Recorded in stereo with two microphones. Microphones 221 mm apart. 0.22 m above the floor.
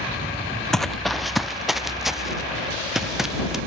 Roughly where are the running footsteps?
Centre.